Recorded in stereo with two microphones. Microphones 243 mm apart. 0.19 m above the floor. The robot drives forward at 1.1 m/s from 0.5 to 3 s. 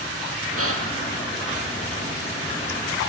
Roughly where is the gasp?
Right.